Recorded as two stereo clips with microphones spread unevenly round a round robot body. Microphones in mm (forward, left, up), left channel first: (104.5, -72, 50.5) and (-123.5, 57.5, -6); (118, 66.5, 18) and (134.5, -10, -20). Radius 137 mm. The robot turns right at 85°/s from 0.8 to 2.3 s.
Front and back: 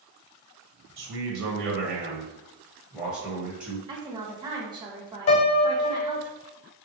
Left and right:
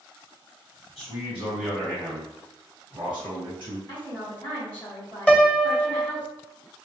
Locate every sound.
1.0 s a man speaking: 115° left, 1.4 m; by 3.8 s 130° right, 1.4 m
3.9 s a woman speaking: 160° right, 1.1 m
5.3 s a piano: 10° left, 0.7 m